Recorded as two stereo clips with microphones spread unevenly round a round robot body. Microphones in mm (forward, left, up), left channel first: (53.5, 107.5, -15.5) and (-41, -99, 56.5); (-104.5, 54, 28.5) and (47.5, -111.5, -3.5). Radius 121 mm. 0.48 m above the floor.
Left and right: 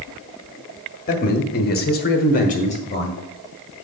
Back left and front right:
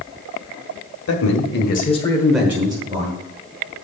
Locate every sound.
1.1 s a man speaking: 105° left, 1.6 m; by 3.1 s 10° left, 1.7 m